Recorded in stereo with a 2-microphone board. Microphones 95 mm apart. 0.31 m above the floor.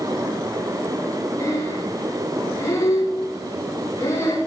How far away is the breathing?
About 8 m.